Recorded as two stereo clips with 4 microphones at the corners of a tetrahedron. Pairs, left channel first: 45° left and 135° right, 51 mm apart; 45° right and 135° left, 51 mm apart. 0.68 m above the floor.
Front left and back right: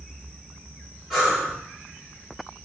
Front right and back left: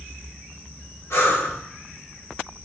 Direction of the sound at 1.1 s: 45° right.